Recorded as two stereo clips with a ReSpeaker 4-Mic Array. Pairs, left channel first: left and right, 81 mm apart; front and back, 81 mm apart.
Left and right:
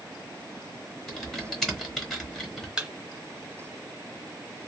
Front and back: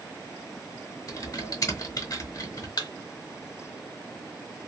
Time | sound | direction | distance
1.1 | typing on a keyboard | 5° left | 1.0 m
2.8 | a thud | 10° right | 0.7 m